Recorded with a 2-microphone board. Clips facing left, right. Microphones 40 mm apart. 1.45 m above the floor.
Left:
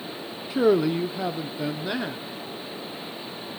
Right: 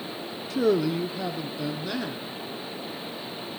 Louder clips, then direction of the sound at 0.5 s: Left 3 dB; 25° left (ahead or behind).